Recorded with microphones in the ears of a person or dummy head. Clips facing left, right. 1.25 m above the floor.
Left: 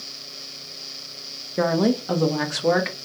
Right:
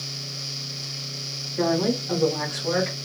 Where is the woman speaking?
65° left (ahead or behind), 1.1 m; by 3.1 s 80° left, 1.5 m.